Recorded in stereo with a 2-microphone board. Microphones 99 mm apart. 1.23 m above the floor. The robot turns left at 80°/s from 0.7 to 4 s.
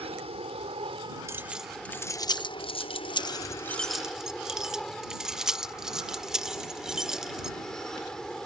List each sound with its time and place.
0.0 s an aircraft: 90° right; by 8.5 s 5° left
1.3 s keys jangling: 25° right (ahead or behind); by 7.5 s 5° right (ahead or behind)